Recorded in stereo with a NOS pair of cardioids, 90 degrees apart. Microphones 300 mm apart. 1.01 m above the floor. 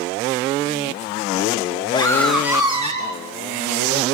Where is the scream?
15° left, 1.6 m; by 3.2 s 30° right, 1.8 m.